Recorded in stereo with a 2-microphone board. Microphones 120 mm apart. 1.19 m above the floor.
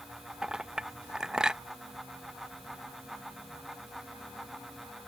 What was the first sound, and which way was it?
A clink, 5° right (ahead or behind).